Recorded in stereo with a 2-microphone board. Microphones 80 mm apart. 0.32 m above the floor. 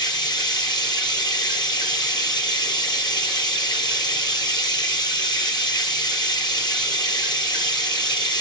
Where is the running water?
65° left (ahead or behind), 4 m.